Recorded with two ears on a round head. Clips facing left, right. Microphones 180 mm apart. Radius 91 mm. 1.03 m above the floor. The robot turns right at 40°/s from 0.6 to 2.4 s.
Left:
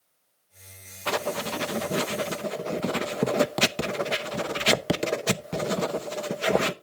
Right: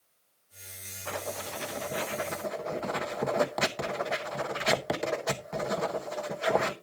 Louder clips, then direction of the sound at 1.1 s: Left 8 dB; 80° left.